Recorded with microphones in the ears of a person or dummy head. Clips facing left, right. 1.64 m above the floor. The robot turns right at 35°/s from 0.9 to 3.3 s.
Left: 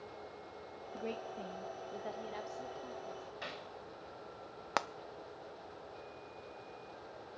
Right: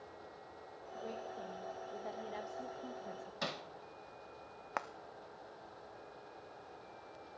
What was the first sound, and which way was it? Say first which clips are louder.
A woman speaking: left 3 dB; 140° left.